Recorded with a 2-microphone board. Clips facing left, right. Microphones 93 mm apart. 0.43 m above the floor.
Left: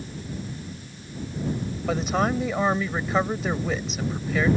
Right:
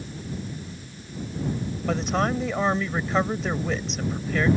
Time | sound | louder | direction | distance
1.9 | a woman speaking | left 1 dB | 5° left (ahead or behind) | ?